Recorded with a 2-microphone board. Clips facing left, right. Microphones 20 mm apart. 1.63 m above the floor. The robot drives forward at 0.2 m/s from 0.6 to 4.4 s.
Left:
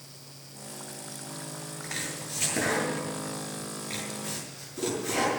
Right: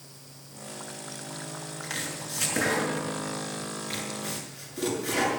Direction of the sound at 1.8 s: 80° right.